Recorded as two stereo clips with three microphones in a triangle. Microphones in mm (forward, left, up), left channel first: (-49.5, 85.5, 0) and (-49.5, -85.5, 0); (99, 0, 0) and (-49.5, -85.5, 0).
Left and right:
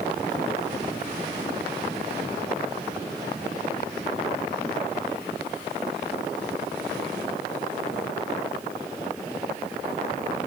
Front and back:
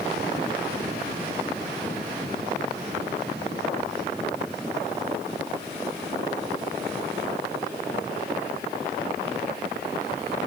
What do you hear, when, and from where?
Only background noise.